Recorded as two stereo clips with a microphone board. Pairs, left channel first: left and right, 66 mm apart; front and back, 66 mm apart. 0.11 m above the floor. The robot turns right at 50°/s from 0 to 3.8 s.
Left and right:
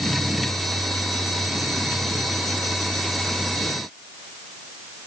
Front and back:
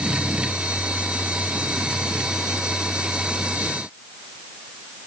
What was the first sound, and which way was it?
Only background noise.